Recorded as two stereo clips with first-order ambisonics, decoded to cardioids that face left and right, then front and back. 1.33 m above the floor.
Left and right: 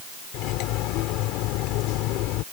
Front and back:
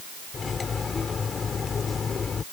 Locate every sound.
0.3 s cutlery clinking: 70° left